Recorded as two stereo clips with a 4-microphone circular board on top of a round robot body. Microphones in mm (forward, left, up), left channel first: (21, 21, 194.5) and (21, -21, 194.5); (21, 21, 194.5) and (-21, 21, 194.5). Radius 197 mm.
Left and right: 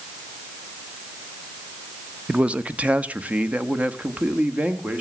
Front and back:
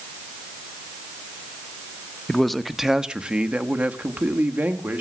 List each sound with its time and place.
2.3 s a man speaking: 65° right, 1.2 m; by 5.0 s 145° right, 2.5 m